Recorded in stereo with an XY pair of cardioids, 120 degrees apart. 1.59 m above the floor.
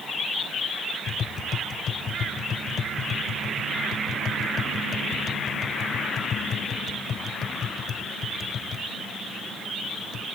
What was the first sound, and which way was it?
Tapping, 50° left.